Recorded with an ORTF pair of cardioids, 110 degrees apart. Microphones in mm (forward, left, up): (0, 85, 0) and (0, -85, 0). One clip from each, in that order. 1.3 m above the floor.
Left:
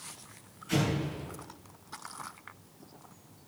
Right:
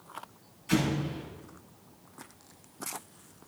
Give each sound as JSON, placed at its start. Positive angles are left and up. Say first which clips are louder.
{"t": 0.7, "sound": "an explosion", "louder": "right 2 dB", "azimuth_deg": -40, "distance_m": 6.0}